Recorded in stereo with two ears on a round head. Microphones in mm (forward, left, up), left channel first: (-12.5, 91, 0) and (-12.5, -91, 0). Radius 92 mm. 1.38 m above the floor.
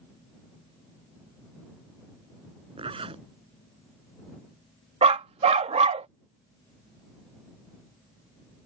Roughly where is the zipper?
Right.